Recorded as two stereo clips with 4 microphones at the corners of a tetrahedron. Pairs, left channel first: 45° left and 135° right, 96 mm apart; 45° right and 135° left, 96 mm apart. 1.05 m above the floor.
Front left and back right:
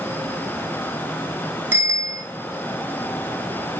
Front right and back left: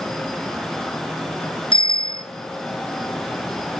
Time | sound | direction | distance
1.7 | a bicycle bell | 70° right | 4 m